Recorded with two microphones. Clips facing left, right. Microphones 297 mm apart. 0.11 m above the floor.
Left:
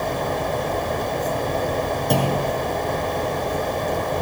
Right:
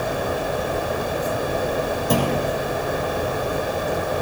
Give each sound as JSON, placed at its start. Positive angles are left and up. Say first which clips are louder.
{"t": 2.1, "sound": "a clunk", "louder": "right 1 dB", "side_deg": -5, "distance_m": 3.5}